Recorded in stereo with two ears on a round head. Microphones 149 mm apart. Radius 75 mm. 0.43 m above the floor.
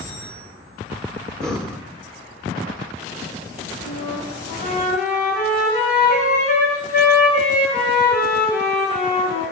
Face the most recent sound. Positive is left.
turn(degrees=50)  # may be behind; listen again after turning